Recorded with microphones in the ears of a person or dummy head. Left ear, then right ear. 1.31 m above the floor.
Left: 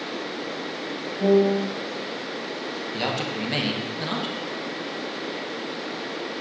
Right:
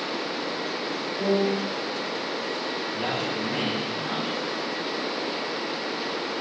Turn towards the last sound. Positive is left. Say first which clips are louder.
# left 3 dB
turn(degrees=75)  # may be behind; listen again after turning